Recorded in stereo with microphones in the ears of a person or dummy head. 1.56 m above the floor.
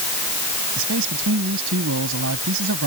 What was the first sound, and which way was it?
A man speaking, 75° right (ahead or behind).